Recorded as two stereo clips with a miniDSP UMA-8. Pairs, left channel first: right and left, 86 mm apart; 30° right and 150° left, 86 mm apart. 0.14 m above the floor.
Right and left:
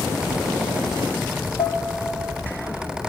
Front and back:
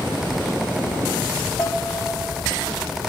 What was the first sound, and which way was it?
Dishes clattering, 95° right.